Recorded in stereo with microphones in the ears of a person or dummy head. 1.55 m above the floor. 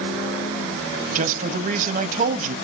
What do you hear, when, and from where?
1.1 s a man speaking: 45° right (ahead or behind), 0.8 m